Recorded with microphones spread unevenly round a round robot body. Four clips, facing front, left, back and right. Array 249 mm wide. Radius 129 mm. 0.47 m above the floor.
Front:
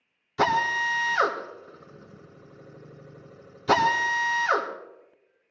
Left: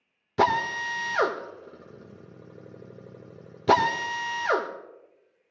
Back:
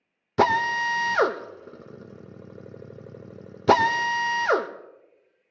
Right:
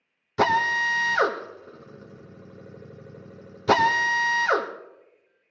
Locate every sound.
0.4 s a drill: straight behind, 1.5 m